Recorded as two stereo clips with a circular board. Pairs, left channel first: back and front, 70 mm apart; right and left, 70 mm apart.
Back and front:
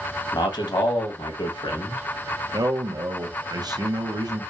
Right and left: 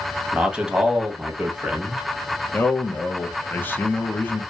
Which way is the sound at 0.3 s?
170° left.